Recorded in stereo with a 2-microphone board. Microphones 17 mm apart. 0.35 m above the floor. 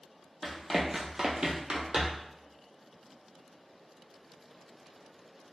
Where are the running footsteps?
5° right (ahead or behind), 0.7 m; by 2.3 s 65° right (ahead or behind), 0.9 m.